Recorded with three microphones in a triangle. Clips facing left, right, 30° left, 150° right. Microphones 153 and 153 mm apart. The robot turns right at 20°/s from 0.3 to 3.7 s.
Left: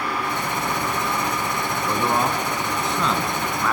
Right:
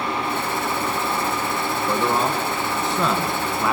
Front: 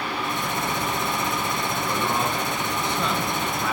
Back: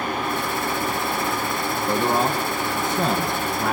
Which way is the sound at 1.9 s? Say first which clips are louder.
Right 1 dB, back 6 dB; 160° left.